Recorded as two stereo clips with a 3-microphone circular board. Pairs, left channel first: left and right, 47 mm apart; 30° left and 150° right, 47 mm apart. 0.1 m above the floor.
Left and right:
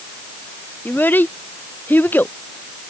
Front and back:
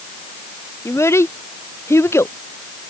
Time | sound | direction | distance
0.8 | a child speaking | 45° left | ?